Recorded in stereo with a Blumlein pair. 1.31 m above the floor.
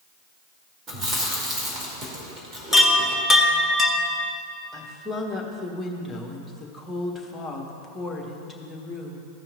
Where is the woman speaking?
10° left, 1.4 m.